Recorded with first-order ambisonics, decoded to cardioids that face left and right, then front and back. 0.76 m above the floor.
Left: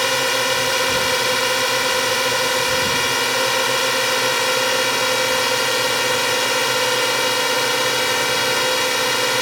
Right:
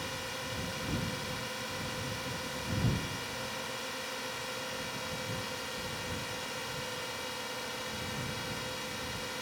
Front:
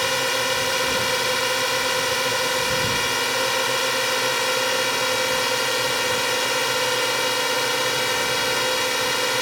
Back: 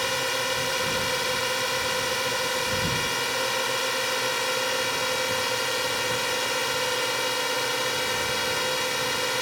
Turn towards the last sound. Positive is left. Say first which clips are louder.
# left 20 dB, front 4 dB
turn(degrees=75)